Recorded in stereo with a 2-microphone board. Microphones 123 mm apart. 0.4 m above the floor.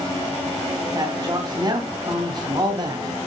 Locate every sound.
0.9 s a man speaking: 35° right (ahead or behind), 3 m